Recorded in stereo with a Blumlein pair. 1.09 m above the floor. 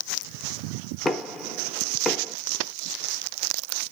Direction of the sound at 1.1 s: 15° left.